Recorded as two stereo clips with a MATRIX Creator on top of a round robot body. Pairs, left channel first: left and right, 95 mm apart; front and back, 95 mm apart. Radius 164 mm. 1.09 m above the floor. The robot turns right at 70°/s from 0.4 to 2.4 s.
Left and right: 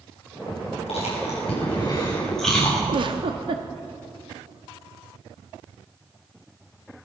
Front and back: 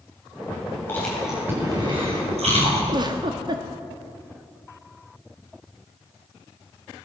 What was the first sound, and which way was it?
Chewing, 70° left.